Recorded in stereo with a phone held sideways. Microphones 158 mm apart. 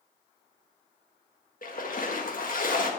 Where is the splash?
60° left (ahead or behind), 1.6 m.